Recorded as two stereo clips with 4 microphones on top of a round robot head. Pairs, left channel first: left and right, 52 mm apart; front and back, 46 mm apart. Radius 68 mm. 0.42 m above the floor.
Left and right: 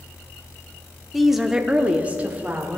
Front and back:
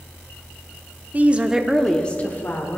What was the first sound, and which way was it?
A woman speaking, straight behind.